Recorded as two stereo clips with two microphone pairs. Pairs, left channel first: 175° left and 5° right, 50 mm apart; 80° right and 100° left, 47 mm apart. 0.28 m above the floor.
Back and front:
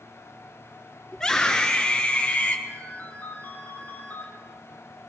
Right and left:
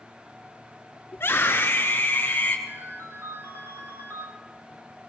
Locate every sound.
1.1 s a scream: 110° right, 4 m; by 2.6 s 140° right, 4.5 m
2.7 s a ringtone: 120° left, 5.5 m